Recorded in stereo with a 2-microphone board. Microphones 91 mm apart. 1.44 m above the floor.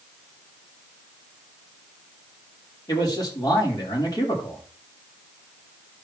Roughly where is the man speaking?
Left.